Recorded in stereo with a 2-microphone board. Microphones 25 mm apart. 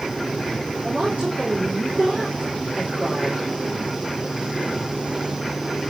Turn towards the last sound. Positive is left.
turn(degrees=-45)  # may be behind; listen again after turning